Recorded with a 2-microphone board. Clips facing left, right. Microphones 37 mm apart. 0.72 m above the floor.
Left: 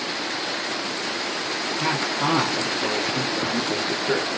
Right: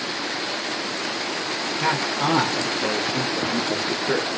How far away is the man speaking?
About 2.5 m.